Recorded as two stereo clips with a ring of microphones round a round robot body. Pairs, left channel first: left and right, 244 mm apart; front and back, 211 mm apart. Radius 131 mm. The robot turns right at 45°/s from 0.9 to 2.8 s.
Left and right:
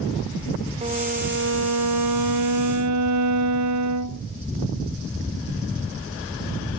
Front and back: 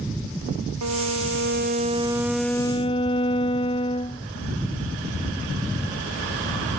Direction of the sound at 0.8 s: 155° right.